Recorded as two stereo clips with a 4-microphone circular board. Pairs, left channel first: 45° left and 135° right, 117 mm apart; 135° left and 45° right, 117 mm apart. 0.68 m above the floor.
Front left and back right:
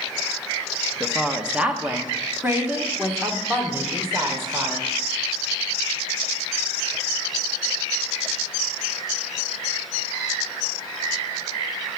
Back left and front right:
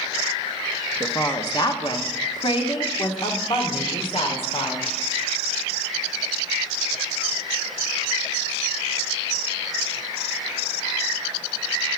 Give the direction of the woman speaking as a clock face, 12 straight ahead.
7 o'clock.